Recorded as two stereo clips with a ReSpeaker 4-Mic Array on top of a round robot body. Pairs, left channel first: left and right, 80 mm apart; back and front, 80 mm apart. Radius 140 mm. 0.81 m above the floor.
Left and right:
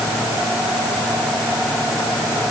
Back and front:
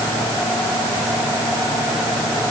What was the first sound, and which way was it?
Only background noise.